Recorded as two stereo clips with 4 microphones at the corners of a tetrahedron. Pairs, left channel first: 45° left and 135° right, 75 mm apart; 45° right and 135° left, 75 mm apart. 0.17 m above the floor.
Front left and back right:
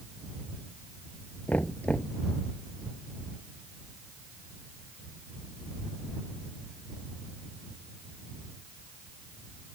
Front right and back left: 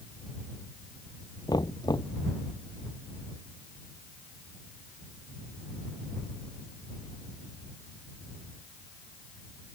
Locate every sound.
1.5 s knocking: 25° right